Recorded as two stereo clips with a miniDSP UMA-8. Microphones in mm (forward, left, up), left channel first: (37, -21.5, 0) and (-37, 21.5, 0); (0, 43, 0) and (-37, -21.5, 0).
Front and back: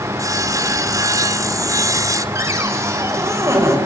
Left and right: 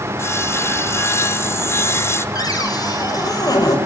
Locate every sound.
0.2 s sawing: 110° left, 1.7 m
2.4 s a cupboard door: 95° left, 5.5 m